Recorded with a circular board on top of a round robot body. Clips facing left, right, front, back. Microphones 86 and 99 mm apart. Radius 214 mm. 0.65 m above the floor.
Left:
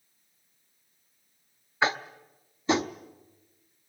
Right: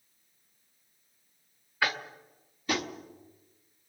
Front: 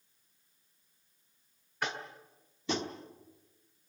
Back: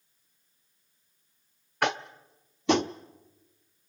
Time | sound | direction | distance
1.8 | tapping | 160° left | 0.7 m